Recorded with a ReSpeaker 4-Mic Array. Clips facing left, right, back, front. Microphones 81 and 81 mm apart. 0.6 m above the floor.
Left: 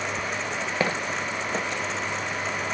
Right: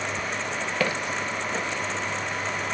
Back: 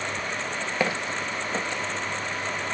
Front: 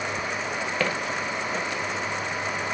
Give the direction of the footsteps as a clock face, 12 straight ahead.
8 o'clock.